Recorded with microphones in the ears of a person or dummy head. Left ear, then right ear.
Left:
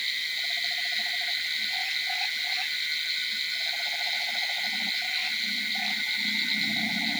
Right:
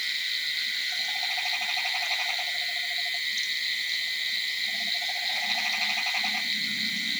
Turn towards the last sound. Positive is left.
No sound to turn to.